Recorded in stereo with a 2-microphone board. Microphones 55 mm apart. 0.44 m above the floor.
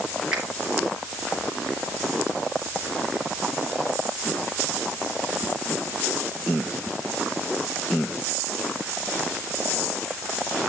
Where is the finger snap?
10° right (ahead or behind), 4.5 m.